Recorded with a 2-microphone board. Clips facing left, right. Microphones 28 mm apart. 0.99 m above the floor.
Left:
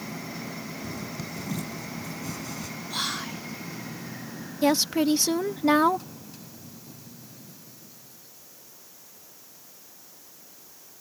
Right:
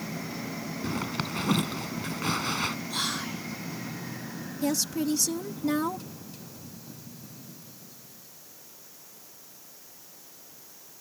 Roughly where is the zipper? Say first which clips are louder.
Right 4 dB; right.